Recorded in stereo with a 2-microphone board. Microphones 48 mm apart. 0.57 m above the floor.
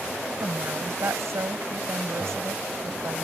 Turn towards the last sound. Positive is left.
turn(degrees=-75)  # may be behind; listen again after turning